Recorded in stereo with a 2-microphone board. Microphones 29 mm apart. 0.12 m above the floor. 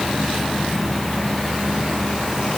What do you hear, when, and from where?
Only background noise.